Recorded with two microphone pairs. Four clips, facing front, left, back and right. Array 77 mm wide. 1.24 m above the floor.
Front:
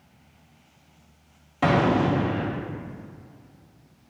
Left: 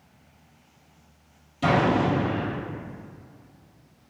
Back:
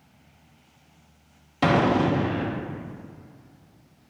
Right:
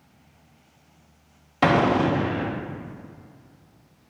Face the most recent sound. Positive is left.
turn(degrees=-90)